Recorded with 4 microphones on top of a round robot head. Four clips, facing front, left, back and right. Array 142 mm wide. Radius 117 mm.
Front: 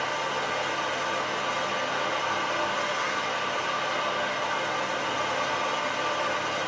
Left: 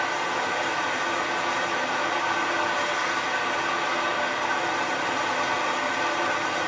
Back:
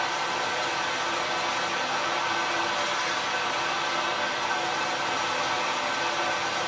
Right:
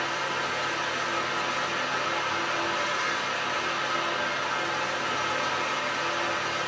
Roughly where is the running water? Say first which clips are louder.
Left 3 dB, back 1 dB; left.